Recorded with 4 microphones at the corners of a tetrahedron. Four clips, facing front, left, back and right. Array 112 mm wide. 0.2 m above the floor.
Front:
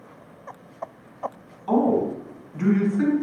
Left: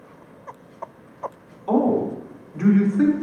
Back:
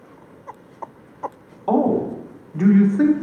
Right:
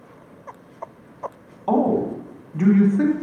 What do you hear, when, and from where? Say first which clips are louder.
1.7 s a man speaking: even, back 2 dB; 135° right, 1.4 m